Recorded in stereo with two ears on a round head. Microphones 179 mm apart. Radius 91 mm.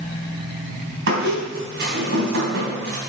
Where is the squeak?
65° right (ahead or behind), 3 m.